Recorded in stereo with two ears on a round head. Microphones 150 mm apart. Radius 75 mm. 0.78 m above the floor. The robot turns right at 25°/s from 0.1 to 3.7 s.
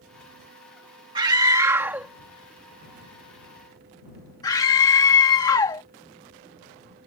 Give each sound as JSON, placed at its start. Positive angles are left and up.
{"t": 1.1, "sound": "a scream", "side_deg": -25}